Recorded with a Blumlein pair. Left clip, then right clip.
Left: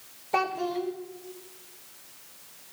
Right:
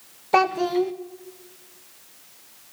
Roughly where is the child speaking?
Ahead right.